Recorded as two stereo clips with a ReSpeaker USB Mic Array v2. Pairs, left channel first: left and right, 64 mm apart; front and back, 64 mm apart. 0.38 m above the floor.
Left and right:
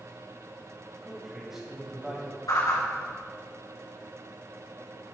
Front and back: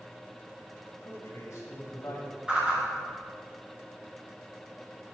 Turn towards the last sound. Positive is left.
turn(degrees=105)